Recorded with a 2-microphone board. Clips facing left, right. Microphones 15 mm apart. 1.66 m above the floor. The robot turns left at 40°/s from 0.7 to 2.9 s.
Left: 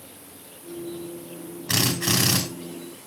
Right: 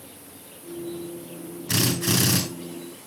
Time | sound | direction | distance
1.7 | a drill | 75° left (ahead or behind) | 5.5 m